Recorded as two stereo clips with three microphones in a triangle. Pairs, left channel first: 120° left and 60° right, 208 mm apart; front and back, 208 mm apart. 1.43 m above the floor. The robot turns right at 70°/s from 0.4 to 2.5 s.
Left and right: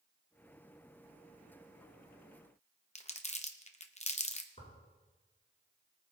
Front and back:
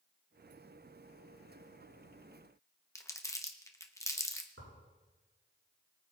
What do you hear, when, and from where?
3.0 s crumpling: 70° left, 0.9 m
4.6 s tearing paper: 175° left, 6 m